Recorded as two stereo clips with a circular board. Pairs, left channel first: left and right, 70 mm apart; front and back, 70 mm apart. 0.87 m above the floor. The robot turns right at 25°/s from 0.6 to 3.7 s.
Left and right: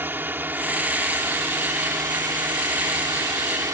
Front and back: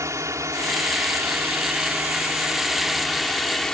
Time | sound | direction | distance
0.0 | a drone | 145° right | ?